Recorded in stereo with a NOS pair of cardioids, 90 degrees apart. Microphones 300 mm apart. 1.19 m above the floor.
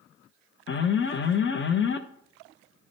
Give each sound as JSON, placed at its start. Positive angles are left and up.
{"t": 0.7, "sound": "an alarm", "azimuth_deg": 40, "distance_m": 0.9}